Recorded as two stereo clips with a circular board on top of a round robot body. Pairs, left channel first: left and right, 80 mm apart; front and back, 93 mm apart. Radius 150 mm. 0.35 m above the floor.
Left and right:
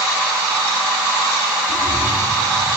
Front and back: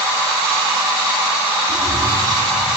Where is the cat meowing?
115° right, 4.5 m.